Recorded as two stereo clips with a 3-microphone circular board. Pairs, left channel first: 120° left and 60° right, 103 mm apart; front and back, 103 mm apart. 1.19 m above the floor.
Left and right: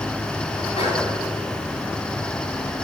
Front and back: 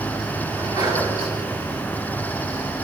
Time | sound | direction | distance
0.6 | a sneeze | 130° left | 6.5 m